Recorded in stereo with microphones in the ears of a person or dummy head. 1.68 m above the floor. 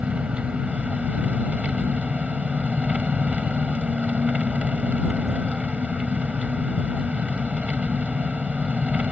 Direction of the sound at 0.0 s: 5° right (ahead or behind).